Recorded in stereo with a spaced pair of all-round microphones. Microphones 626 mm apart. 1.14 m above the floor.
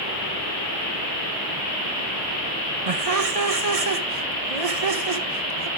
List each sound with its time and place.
2.9 s laughter: 65° right (ahead or behind), 1.3 m